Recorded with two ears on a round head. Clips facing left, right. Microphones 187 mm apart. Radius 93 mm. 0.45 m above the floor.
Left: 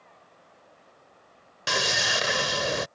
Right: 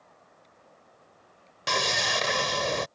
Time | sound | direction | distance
1.7 | sawing | 10° left (ahead or behind) | ?